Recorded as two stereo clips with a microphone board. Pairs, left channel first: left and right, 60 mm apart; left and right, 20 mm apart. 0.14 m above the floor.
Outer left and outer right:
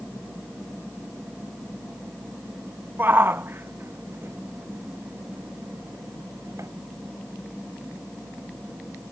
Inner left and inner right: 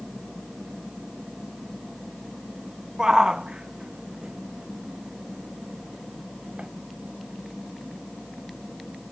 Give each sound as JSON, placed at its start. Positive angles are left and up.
{"t": 3.0, "sound": "a shout", "side_deg": -35}